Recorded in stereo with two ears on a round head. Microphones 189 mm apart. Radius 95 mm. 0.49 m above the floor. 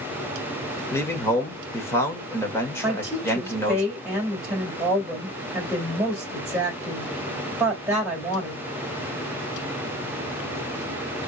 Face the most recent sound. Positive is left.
turn(degrees=-5)  # may be behind; listen again after turning